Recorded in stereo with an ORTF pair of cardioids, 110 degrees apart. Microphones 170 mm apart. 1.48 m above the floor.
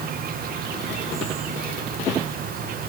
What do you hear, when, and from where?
0.0 s an insect: 60° right, 1.5 m